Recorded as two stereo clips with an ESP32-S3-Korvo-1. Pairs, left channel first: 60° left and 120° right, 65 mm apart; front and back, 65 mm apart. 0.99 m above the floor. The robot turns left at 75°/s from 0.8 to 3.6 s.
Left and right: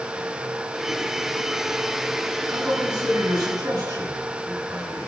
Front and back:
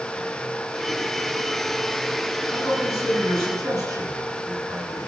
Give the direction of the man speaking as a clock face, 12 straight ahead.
2 o'clock.